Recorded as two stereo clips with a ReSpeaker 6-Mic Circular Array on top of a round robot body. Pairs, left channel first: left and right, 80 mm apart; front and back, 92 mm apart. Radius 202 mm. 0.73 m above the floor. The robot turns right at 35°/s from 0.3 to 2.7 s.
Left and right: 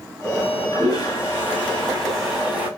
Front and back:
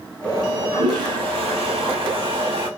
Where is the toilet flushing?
120° left, 2 m; by 2.7 s 160° right, 2 m.